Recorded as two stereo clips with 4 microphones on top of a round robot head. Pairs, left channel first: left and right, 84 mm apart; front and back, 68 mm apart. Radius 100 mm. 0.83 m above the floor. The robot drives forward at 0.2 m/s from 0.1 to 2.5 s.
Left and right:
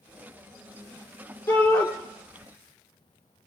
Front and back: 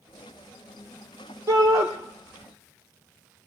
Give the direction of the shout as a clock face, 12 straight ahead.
7 o'clock.